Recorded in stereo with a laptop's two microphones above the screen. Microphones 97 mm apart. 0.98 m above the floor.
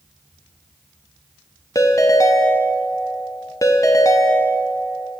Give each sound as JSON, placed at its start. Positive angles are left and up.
{"t": 1.8, "sound": "a ringtone", "side_deg": 35, "distance_m": 0.7}